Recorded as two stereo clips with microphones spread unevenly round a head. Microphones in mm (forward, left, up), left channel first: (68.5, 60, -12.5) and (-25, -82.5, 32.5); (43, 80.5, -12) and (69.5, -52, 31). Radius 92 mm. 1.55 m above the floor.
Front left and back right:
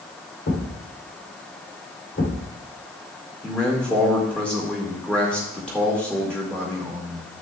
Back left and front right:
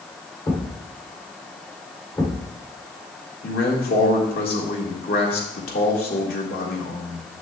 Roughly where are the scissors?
No scissors in this recording.